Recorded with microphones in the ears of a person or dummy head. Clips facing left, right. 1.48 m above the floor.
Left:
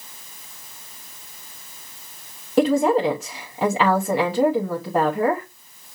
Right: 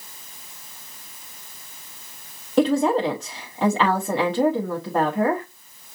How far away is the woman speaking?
About 0.9 m.